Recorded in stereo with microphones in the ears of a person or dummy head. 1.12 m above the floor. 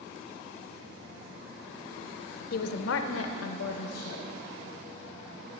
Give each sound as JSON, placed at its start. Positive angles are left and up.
{"t": 2.5, "sound": "a woman speaking", "side_deg": 50, "distance_m": 0.5}